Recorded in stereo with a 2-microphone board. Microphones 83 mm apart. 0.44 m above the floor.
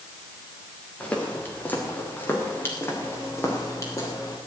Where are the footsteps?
15° left (ahead or behind), 4 m; by 4.4 s 40° left (ahead or behind), 5 m.